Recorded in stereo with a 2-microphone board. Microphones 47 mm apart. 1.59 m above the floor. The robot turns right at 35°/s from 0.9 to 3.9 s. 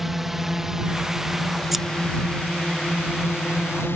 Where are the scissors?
5° right (ahead or behind).